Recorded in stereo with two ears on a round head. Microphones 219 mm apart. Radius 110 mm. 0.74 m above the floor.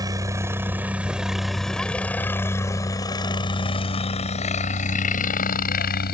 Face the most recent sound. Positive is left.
turn(degrees=40)  # may be behind; listen again after turning